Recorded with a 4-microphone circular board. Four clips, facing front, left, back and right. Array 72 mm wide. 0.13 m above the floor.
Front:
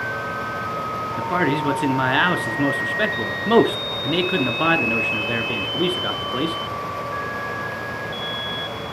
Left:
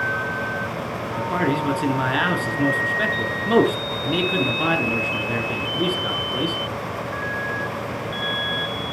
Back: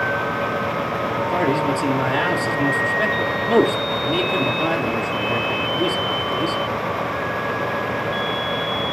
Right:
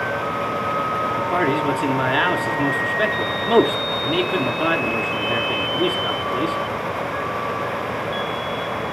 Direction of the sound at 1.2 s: 10° right.